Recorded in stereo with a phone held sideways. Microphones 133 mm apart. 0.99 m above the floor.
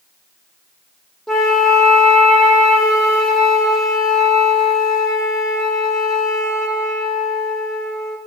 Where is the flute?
Centre (ahead or behind), 0.6 m.